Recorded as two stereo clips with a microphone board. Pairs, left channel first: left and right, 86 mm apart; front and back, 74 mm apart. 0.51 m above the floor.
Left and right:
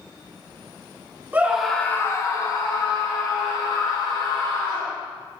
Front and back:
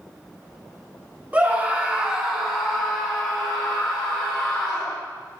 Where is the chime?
No chime in this recording.